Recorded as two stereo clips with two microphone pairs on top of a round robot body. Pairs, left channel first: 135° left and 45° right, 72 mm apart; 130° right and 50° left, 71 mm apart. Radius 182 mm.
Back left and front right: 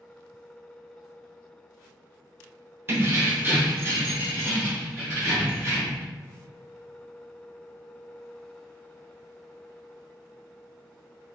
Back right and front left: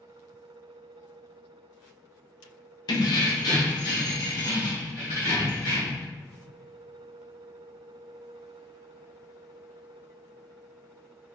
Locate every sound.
2.9 s keys jangling: 105° right, 0.6 m; by 6.0 s 100° right, 2.5 m